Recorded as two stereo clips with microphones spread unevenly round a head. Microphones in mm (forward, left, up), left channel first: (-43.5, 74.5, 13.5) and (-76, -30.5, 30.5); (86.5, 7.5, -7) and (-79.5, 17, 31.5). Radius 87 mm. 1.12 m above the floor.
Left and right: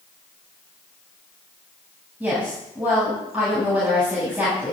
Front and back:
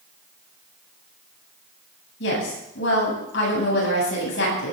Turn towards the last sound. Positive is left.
turn(degrees=-25)